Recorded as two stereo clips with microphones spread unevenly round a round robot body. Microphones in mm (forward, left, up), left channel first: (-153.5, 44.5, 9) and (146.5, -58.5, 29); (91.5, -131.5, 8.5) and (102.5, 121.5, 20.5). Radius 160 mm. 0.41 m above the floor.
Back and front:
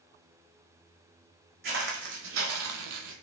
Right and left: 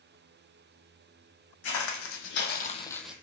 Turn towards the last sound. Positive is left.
turn(degrees=5)